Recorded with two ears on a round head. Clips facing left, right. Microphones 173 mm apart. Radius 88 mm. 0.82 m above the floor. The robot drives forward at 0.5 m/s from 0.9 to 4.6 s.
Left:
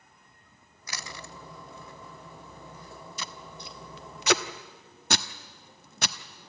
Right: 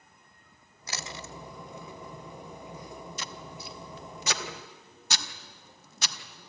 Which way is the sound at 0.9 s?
25° right (ahead or behind).